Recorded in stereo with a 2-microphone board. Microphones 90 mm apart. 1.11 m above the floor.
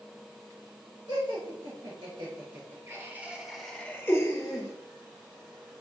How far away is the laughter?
About 1.3 m.